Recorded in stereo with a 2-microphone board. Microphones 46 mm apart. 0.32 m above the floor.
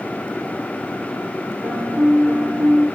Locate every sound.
1.6 s a piano: 75° right (ahead or behind), 9.5 m